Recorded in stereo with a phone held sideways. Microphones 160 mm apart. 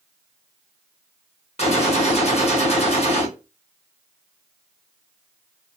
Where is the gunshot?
45° left (ahead or behind), 1.0 m.